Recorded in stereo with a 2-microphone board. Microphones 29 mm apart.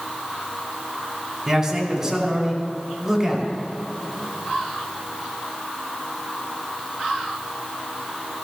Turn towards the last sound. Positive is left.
turn(degrees=-20)  # may be behind; listen again after turning